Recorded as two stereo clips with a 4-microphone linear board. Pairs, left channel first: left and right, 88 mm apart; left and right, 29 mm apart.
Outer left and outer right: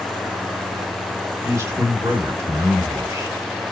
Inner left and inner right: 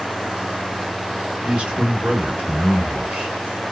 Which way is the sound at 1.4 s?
35° right (ahead or behind).